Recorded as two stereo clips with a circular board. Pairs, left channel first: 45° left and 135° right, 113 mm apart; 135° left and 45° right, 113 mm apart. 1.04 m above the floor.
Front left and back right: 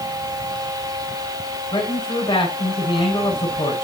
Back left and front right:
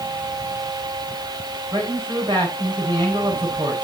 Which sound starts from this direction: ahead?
A man speaking, at 1.7 s.